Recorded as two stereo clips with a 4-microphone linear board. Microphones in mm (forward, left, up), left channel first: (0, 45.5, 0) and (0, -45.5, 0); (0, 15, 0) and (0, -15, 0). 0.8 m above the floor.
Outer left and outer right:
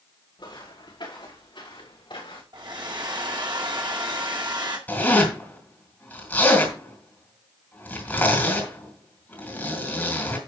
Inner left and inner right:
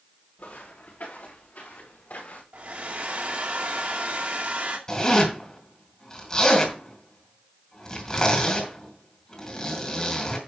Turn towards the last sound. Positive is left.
turn(degrees=20)  # may be behind; listen again after turning